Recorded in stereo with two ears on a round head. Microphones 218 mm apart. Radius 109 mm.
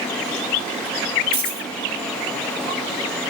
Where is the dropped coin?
20° left (ahead or behind), 4 m.